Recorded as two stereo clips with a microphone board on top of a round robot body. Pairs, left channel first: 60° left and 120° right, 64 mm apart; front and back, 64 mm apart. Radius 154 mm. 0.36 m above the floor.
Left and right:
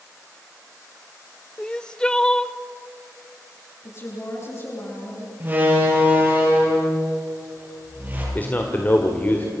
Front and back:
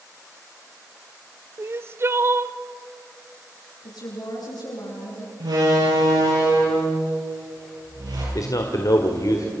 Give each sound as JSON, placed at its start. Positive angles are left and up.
{"t": 1.6, "sound": "crying", "azimuth_deg": 135, "distance_m": 0.9}
{"t": 3.8, "sound": "a woman speaking", "azimuth_deg": 10, "distance_m": 9.0}
{"t": 5.4, "sound": "a door slam", "azimuth_deg": 175, "distance_m": 9.0}
{"t": 8.3, "sound": "a man speaking", "azimuth_deg": 0, "distance_m": 2.0}